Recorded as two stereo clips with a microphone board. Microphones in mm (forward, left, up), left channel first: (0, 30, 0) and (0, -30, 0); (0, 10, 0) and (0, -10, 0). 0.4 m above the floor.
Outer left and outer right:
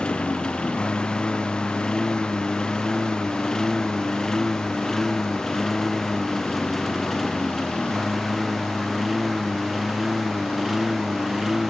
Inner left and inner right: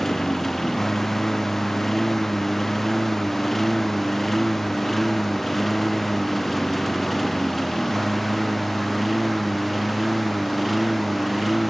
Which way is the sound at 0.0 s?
15° left (ahead or behind).